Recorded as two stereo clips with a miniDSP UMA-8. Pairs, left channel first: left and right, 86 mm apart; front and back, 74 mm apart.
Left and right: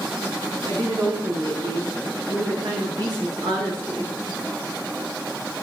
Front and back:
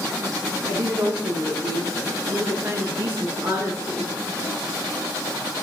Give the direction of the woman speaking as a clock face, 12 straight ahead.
4 o'clock.